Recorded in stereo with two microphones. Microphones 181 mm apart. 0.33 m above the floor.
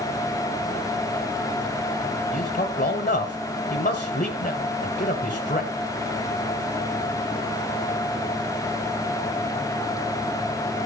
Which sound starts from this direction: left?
A man speaking, at 2.3 s.